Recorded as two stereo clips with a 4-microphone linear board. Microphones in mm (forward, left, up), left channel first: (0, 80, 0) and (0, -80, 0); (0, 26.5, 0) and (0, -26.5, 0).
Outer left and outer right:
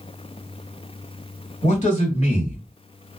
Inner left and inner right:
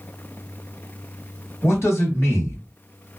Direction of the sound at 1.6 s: 50° left (ahead or behind).